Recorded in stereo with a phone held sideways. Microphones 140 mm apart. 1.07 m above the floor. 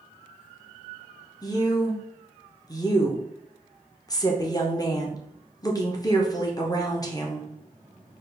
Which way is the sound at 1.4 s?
25° left (ahead or behind).